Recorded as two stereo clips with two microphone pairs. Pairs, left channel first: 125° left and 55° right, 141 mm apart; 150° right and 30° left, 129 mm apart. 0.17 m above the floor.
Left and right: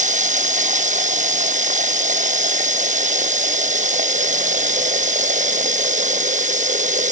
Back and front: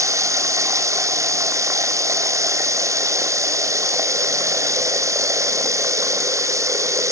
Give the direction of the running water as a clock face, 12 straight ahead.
1 o'clock.